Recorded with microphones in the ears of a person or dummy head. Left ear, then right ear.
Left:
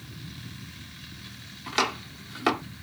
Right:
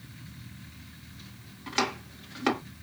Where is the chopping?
5° left (ahead or behind), 1.7 m.